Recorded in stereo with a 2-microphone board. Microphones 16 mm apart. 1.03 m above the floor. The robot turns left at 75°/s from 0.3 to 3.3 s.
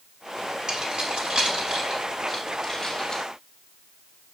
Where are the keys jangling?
45° right (ahead or behind), 6 m; by 3.2 s 55° left (ahead or behind), 6 m.